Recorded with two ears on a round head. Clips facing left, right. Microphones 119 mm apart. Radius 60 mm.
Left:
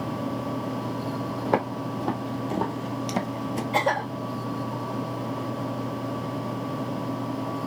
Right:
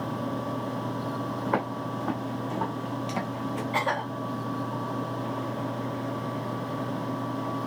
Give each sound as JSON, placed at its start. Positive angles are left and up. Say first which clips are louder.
{"t": 1.4, "sound": "footsteps", "louder": "left 4 dB", "side_deg": 35, "distance_m": 1.9}
{"t": 3.7, "sound": "a cough", "louder": "left 5 dB", "side_deg": 40, "distance_m": 3.0}